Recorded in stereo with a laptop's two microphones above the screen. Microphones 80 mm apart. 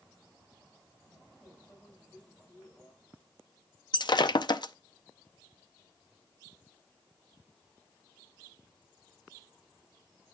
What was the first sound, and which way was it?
A microwave, 25° left (ahead or behind).